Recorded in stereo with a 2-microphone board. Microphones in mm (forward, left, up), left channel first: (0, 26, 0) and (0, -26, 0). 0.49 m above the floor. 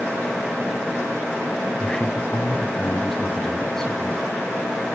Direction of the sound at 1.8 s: 15° left (ahead or behind).